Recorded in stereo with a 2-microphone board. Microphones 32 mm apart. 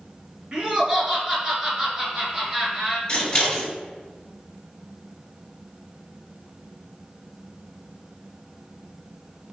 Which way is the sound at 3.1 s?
25° left (ahead or behind).